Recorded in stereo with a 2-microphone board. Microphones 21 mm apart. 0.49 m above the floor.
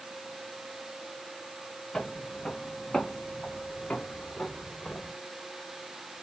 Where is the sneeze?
No sneeze in this recording.